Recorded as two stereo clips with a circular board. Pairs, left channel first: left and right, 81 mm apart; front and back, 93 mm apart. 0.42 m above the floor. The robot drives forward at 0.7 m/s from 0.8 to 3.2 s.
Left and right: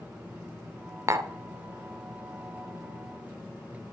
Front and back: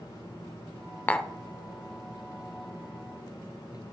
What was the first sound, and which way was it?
Tapping, 65° right.